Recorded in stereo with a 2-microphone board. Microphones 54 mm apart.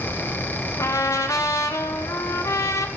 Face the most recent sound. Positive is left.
turn(degrees=75)  # may be behind; listen again after turning